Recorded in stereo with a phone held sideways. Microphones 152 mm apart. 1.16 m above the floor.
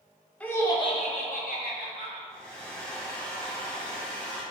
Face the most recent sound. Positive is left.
turn(degrees=5)  # may be behind; listen again after turning